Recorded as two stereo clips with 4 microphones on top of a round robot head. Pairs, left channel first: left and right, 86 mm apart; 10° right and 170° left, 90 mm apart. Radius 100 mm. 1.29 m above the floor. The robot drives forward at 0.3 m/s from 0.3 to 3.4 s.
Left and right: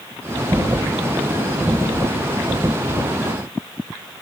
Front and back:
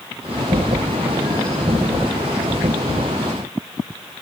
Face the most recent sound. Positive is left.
No sound to turn to.